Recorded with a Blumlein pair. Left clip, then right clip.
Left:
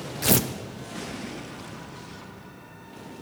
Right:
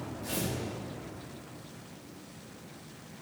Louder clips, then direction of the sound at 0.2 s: Left 12 dB; 45° left.